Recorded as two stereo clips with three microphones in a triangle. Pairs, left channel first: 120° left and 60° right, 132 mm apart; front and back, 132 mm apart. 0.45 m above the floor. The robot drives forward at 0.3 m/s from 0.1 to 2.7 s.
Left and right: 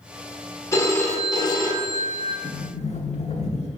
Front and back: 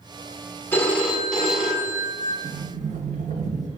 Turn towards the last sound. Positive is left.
turn(degrees=160)